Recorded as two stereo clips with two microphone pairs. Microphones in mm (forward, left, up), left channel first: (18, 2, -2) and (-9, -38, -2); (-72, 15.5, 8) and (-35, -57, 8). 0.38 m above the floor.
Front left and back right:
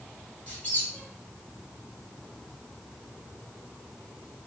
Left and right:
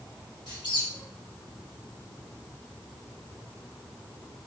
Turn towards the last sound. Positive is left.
turn(degrees=115)